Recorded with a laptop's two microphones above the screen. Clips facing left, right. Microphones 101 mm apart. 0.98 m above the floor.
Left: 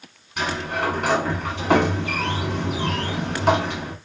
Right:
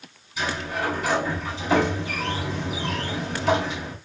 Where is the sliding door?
65° left (ahead or behind), 1.3 m.